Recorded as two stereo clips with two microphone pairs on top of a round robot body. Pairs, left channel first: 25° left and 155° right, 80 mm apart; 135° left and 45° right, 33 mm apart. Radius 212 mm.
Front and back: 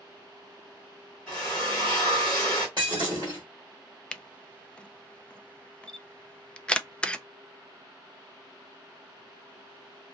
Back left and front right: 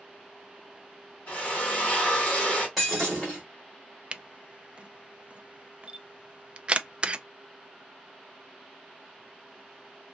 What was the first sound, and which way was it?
A drill, 100° left.